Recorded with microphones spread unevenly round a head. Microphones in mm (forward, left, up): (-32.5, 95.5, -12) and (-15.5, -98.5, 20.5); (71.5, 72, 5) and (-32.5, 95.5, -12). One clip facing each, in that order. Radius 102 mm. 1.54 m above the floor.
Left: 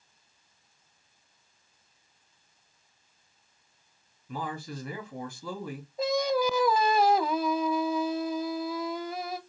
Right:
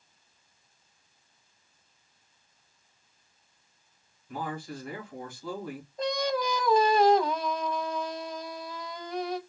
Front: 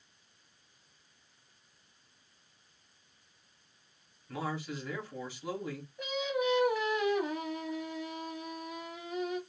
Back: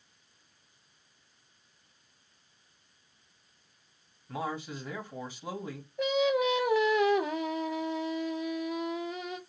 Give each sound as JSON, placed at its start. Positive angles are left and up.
{"t": 4.3, "sound": "a man speaking", "azimuth_deg": 100, "distance_m": 2.0}
{"t": 6.0, "sound": "singing", "azimuth_deg": 175, "distance_m": 0.7}